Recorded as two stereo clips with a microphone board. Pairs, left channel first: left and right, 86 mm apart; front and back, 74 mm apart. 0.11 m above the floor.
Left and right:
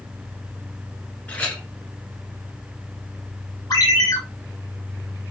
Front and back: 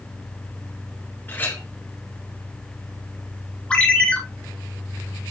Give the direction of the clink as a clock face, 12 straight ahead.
11 o'clock.